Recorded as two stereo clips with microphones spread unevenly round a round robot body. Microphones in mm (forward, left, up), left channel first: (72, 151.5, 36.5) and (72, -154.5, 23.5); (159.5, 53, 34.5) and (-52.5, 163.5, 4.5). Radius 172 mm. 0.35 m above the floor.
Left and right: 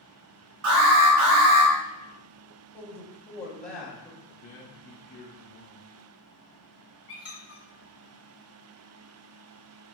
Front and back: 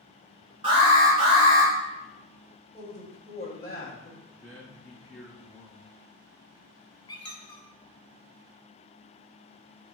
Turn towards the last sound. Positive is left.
turn(degrees=45)